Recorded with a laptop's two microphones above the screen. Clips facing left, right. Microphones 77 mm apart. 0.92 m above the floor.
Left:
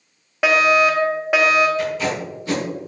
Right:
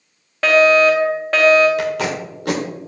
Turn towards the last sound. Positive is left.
turn(degrees=-75)  # may be behind; listen again after turning